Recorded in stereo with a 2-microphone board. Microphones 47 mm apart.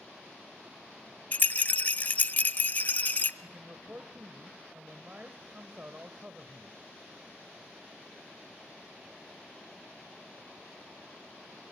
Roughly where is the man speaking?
Right.